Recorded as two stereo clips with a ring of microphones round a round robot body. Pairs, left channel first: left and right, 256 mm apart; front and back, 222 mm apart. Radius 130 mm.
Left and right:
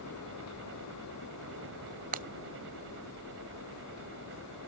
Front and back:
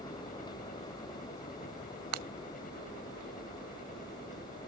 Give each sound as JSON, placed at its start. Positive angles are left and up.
{"t": 0.0, "sound": "a helicopter", "azimuth_deg": -55}
{"t": 2.1, "sound": "breaking glass", "azimuth_deg": -150}